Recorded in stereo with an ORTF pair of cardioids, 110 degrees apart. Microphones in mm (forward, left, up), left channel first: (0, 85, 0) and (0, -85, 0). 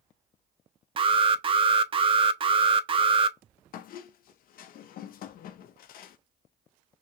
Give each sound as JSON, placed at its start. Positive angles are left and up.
{"t": 1.0, "sound": "an alarm", "azimuth_deg": -35, "distance_m": 0.6}
{"t": 3.7, "sound": "a squeak", "azimuth_deg": 60, "distance_m": 0.6}